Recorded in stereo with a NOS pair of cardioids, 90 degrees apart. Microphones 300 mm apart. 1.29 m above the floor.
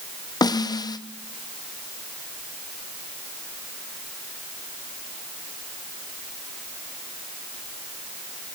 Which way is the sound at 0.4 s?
15° left.